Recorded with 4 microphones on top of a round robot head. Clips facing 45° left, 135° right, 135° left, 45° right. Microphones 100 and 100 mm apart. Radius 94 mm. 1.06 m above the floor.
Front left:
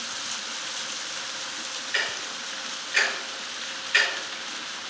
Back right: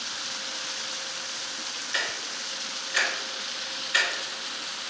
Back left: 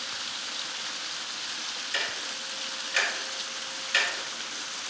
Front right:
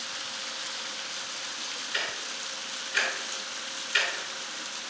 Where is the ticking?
150° left, 2 m.